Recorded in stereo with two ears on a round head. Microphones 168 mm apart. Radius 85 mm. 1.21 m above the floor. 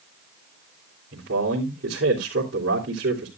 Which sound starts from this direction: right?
A man speaking, at 1.1 s.